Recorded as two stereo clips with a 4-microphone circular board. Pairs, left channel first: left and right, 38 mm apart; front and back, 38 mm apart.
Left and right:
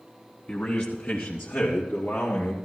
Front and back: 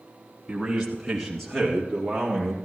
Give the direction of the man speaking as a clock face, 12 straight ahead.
8 o'clock.